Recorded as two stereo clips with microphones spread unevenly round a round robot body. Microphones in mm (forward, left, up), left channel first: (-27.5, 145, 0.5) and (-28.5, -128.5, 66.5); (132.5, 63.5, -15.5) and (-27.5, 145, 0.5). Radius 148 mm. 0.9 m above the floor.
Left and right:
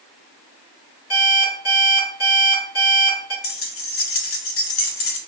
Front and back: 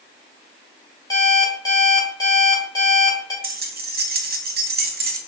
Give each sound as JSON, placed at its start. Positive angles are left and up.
{"t": 1.1, "sound": "an alarm clock", "azimuth_deg": 45, "distance_m": 1.6}
{"t": 3.4, "sound": "keys jangling", "azimuth_deg": 115, "distance_m": 0.7}